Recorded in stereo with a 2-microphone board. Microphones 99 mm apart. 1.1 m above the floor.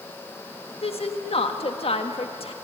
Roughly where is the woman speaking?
Left.